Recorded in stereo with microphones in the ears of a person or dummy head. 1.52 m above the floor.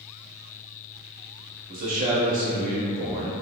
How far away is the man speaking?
About 0.7 m.